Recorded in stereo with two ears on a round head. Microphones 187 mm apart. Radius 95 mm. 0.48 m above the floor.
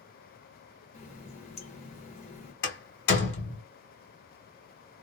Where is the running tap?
30° left (ahead or behind), 1.0 m.